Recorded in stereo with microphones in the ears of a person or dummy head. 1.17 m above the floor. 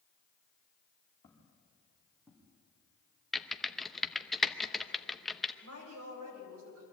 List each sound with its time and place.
1.2 s footsteps: 20° left (ahead or behind), 4 m; by 2.5 s 10° right (ahead or behind), 4 m
3.3 s typing on a keyboard: centre (ahead or behind), 0.8 m
5.6 s a woman speaking: 90° right, 5.5 m